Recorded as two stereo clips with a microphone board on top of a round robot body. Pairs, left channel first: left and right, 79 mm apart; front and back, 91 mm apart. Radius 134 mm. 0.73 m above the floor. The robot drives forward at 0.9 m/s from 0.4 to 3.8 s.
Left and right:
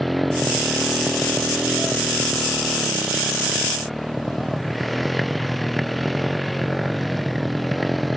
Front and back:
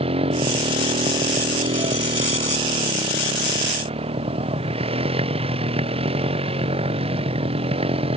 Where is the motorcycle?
Straight behind.